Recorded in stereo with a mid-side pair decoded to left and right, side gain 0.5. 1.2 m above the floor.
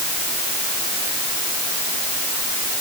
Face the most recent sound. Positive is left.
No sound to turn to.